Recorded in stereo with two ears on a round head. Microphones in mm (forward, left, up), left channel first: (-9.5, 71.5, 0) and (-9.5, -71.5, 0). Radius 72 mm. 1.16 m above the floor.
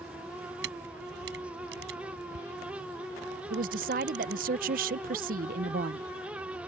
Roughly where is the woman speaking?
Right.